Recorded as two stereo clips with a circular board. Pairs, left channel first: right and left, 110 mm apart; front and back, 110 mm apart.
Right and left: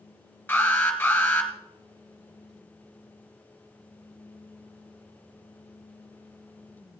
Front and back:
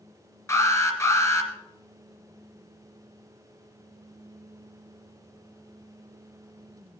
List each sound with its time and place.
0.5 s an alarm: 30° right, 2.5 m